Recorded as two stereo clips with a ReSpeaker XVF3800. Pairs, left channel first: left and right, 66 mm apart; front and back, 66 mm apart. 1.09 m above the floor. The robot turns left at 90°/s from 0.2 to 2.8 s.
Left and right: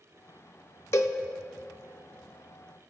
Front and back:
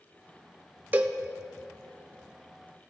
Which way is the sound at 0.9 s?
125° left.